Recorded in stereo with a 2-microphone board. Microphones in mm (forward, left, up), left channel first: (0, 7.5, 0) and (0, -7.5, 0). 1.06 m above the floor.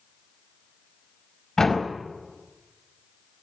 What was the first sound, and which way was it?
A door slam, 35° left (ahead or behind).